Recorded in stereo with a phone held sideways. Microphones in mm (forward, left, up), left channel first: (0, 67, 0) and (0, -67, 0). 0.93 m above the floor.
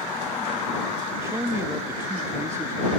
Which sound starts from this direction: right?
A man speaking, at 1.2 s.